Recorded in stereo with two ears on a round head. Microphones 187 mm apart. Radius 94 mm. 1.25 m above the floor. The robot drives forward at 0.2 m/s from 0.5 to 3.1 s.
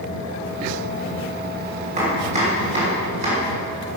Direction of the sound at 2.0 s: 35° right (ahead or behind).